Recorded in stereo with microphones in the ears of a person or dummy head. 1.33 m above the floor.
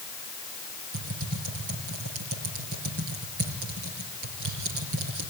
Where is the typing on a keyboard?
70° right (ahead or behind), 4.5 m.